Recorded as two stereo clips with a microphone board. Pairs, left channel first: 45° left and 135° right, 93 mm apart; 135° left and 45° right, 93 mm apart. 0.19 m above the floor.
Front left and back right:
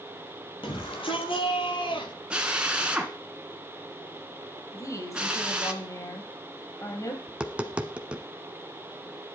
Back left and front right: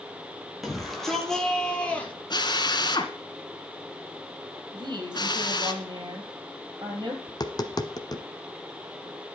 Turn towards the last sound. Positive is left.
turn(degrees=150)